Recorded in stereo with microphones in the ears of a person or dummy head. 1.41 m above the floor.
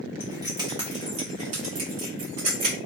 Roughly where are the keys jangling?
Centre.